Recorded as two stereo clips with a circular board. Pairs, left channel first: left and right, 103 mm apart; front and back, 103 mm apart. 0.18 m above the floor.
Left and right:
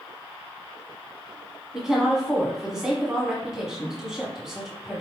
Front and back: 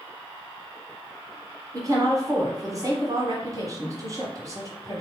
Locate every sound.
1.7 s a woman speaking: 170° right, 1.4 m